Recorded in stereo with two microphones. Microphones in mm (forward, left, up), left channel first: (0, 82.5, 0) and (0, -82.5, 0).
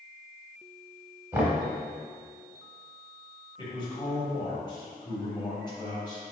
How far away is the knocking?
About 0.9 m.